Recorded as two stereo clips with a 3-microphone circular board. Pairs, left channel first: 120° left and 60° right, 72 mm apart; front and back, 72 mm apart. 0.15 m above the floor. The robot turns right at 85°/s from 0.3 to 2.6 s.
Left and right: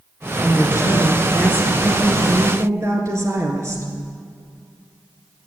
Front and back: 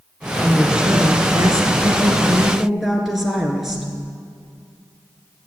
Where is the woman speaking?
80° left, 2 m; by 3.9 s 95° right, 2 m.